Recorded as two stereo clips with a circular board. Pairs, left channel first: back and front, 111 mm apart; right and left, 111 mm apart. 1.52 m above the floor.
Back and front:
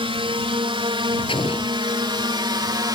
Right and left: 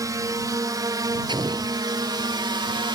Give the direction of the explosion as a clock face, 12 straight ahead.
7 o'clock.